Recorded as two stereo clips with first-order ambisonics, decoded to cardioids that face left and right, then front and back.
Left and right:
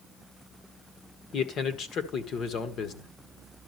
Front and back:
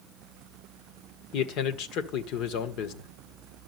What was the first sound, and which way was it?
A man speaking, 35° left.